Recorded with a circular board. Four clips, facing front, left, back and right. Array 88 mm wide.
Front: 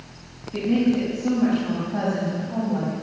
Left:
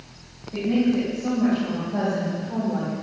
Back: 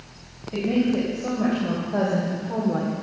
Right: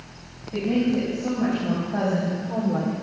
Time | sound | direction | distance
0.5 | a woman speaking | 170° right | 5.5 m